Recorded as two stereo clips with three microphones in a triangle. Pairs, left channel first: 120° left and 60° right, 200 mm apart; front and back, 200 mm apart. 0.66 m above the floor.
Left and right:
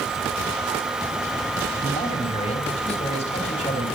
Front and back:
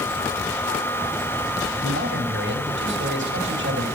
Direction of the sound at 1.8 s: 175° left.